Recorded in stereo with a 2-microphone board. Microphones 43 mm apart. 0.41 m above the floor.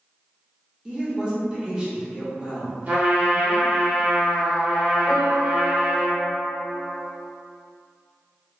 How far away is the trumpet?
About 1.0 m.